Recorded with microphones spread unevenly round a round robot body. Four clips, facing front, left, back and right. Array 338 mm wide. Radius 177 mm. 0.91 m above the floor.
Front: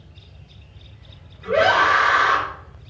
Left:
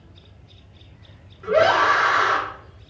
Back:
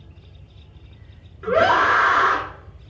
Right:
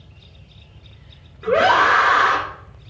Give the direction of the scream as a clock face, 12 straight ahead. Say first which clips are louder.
Right 2 dB, even; 5 o'clock.